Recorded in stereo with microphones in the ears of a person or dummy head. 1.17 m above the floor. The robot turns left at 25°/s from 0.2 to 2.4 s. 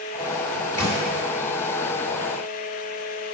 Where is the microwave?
25° left (ahead or behind), 3 m; by 1.0 s 15° left (ahead or behind), 3 m.